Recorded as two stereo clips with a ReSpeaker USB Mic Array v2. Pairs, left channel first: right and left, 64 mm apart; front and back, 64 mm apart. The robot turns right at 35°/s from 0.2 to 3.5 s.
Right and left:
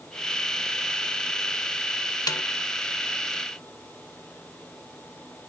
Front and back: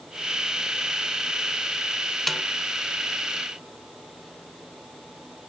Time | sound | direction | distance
2.3 | a snare drum | 85° right | ?